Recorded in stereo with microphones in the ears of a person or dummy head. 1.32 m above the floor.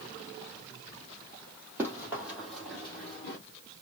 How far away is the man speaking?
I don't hear a man speaking.